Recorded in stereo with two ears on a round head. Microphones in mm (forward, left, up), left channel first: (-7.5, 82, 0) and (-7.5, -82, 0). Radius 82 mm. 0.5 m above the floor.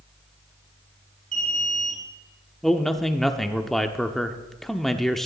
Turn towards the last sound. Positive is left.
turn(degrees=0)  # may be behind; listen again after turning